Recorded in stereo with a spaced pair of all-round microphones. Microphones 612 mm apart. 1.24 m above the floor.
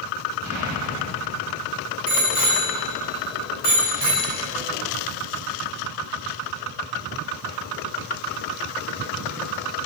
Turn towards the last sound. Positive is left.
turn(degrees=70)  # may be behind; listen again after turning